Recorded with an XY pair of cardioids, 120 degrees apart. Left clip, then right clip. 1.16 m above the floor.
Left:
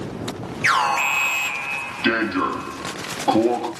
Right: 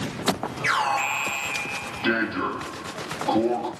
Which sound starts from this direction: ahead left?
An alarm, at 0.6 s.